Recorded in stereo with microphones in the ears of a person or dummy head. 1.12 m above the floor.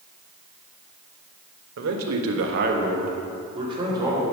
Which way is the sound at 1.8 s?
70° right (ahead or behind).